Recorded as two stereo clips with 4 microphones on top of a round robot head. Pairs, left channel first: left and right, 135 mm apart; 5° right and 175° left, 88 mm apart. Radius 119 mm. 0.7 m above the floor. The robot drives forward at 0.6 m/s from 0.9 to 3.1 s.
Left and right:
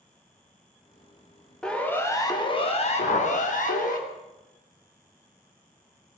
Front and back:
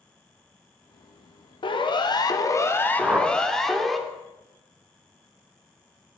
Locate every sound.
1.6 s a siren: 5° left, 2.5 m; by 4.0 s 85° left, 3 m
3.0 s a whoosh: 95° left, 3.5 m; by 3.3 s 100° left, 3.5 m